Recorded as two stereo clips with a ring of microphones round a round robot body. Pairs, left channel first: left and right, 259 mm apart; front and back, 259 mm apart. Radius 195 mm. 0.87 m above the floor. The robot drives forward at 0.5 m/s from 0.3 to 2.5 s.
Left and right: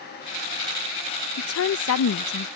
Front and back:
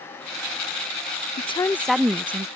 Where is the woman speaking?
65° left; by 2.5 s 115° left.